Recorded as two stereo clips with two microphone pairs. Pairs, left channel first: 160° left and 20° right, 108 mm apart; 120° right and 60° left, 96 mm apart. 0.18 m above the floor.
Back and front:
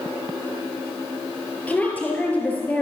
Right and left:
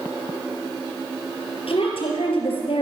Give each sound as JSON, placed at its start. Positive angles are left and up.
{"t": 1.7, "sound": "a woman speaking", "azimuth_deg": -125, "distance_m": 4.5}